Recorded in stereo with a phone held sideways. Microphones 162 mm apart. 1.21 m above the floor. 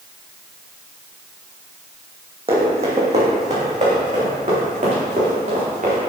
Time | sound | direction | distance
2.5 | running footsteps | 35° right (ahead or behind) | 2.5 m